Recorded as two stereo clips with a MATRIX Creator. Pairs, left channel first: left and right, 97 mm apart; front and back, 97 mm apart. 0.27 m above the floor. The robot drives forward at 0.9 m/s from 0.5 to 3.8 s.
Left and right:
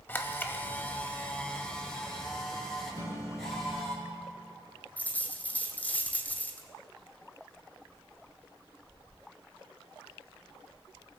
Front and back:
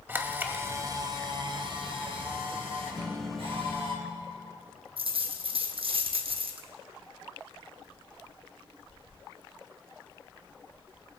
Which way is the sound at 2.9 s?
145° right.